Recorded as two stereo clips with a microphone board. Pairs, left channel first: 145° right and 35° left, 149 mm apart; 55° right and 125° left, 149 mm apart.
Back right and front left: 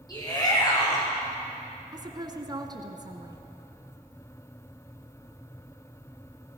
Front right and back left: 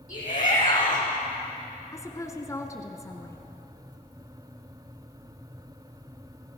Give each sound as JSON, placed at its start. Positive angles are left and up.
{"t": 0.1, "sound": "a shout", "azimuth_deg": -85, "distance_m": 8.5}
{"t": 1.9, "sound": "a woman speaking", "azimuth_deg": -5, "distance_m": 1.9}